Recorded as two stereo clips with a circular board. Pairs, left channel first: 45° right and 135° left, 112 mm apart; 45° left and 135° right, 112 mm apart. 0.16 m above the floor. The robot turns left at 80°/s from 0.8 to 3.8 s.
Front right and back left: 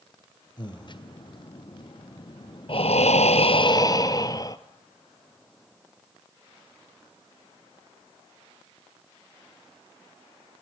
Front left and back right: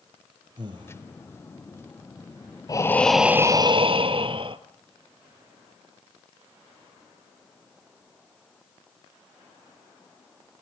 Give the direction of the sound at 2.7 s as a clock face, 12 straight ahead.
12 o'clock.